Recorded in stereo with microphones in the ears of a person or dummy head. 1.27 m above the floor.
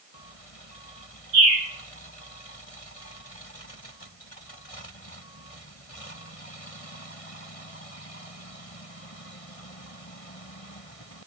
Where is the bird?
80° right, 1.7 m.